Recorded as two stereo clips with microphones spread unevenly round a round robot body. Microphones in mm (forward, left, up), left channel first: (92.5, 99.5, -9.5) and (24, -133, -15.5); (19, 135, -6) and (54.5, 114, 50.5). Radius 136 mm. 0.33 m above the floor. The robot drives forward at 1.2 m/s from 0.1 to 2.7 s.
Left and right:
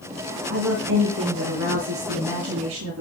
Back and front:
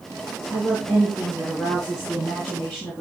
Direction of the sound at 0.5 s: 130° right.